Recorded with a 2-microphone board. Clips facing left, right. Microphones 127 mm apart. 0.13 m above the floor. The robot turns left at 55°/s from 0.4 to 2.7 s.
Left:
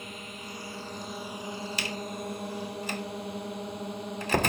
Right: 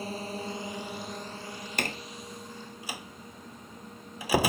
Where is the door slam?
50° right (ahead or behind); by 4.5 s 5° right (ahead or behind).